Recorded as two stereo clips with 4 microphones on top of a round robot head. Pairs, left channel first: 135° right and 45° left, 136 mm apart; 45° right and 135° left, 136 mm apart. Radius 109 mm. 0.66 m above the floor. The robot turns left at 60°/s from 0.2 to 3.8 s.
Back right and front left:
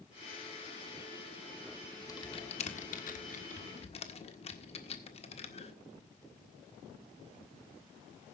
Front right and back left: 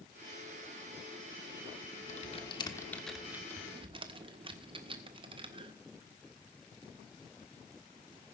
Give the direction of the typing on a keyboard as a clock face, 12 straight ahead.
2 o'clock.